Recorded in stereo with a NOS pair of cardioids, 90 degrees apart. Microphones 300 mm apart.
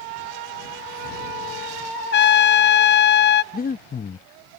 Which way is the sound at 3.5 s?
30° left.